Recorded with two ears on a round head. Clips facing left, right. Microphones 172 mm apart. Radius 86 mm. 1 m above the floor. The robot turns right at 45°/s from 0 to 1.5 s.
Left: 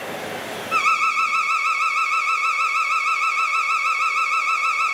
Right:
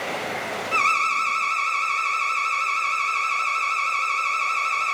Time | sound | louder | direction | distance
0.7 | an alarm | left 1 dB | 25° left | 1.3 m